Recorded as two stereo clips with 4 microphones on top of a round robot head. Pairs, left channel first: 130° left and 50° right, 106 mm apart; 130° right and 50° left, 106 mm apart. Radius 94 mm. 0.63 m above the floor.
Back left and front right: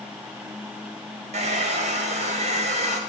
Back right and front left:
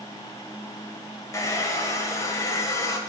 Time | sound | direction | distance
1.3 | a hair dryer | 70° right | 1.6 m